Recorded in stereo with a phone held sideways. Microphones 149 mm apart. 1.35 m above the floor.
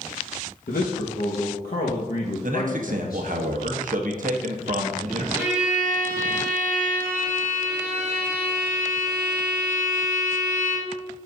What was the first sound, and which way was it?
A man speaking, 80° left.